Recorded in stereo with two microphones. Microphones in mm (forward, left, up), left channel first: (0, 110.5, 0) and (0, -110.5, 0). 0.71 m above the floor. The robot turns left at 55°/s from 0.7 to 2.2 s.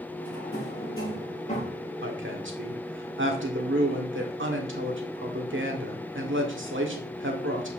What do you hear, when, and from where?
0.2 s a drawer: 80° left, 5.5 m; by 1.8 s 20° left (ahead or behind), 5.5 m
2.0 s a woman speaking: 70° right (ahead or behind), 1.8 m; by 7.8 s 65° right (ahead or behind), 1.8 m